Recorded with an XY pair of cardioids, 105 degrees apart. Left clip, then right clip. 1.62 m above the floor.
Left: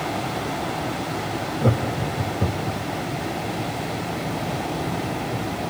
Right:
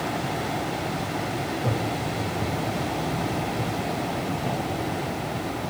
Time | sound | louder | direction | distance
1.6 | laughter | left 3 dB | 50° left | 1.0 m